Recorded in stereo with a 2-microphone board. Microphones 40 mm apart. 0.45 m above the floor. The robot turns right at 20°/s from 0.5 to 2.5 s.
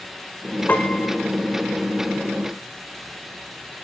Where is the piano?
40° left (ahead or behind), 1.3 m; by 1.2 s 50° left (ahead or behind), 1.3 m.